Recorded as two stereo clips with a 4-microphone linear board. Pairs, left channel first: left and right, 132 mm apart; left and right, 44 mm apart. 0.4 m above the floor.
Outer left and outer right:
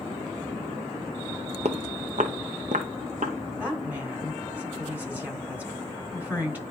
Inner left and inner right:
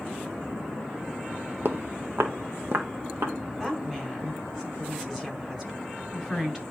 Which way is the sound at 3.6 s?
15° right (ahead or behind).